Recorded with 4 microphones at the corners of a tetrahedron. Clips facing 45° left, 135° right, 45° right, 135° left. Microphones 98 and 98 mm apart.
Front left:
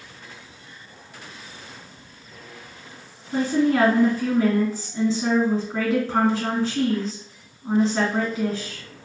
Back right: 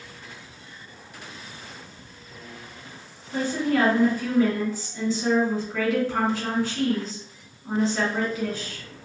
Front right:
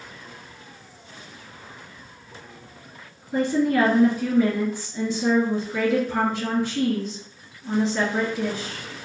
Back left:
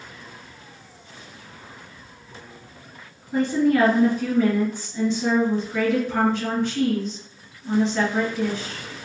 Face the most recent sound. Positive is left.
turn(degrees=35)